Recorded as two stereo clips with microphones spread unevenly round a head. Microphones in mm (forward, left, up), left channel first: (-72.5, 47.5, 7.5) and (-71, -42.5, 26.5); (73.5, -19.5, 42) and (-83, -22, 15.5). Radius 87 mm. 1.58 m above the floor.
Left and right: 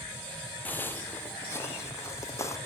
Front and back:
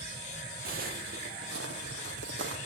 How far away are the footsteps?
About 1.9 m.